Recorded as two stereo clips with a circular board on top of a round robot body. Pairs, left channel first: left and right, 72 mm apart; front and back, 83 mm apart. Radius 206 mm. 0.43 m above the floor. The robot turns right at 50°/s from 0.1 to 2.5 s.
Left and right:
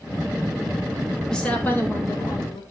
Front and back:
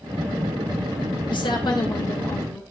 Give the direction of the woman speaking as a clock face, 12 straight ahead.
12 o'clock.